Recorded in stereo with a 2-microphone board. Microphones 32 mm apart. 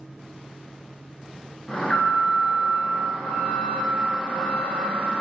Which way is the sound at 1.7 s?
25° left (ahead or behind).